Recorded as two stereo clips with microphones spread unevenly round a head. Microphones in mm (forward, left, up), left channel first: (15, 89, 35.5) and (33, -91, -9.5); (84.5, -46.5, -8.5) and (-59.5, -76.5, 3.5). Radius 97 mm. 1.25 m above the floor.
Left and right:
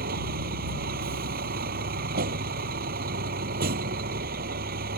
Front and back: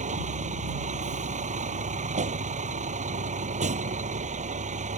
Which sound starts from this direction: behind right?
A vehicle, at 0.0 s.